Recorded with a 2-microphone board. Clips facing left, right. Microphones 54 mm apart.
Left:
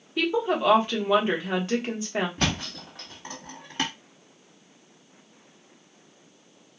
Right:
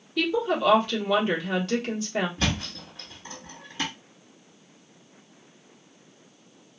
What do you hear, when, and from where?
0.2 s a woman speaking: 20° left (ahead or behind), 1.1 m
2.4 s a thud: 60° left (ahead or behind), 1.7 m